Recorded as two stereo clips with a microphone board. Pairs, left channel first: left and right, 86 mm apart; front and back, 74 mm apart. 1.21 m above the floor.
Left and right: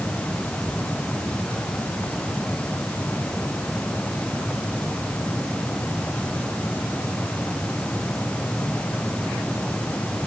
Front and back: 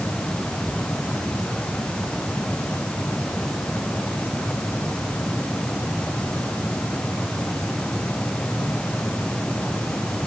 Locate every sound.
Only background noise.